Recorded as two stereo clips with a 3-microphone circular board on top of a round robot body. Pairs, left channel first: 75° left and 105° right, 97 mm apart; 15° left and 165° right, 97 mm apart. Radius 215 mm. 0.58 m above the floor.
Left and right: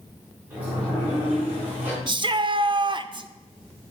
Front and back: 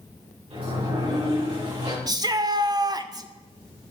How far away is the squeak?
I don't hear a squeak.